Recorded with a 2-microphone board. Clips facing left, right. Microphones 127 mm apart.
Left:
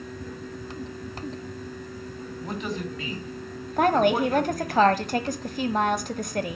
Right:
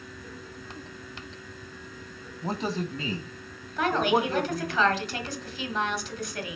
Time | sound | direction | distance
2.4 | a man speaking | 35° right (ahead or behind) | 2.5 m
3.8 | a woman speaking | 45° left (ahead or behind) | 1.4 m